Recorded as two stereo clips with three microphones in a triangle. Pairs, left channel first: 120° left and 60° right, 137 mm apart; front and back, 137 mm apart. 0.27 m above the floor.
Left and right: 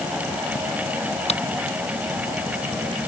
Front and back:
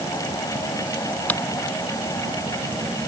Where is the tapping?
80° left.